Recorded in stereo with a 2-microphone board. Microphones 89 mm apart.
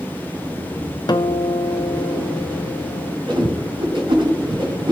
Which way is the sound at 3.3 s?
65° right (ahead or behind).